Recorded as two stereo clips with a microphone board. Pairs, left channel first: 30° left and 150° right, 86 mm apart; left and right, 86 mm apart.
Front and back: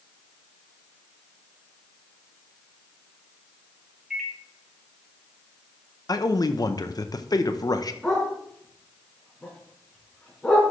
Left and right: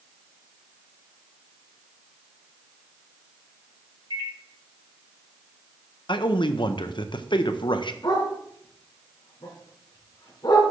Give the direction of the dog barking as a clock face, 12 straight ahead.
8 o'clock.